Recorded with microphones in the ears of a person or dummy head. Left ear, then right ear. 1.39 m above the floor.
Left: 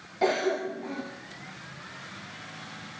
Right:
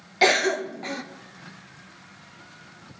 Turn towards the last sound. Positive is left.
turn(degrees=-65)  # may be behind; listen again after turning